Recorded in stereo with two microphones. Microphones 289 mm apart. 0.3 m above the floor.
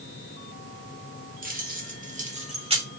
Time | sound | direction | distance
1.4 | keys jangling | 30° right (ahead or behind) | 0.8 m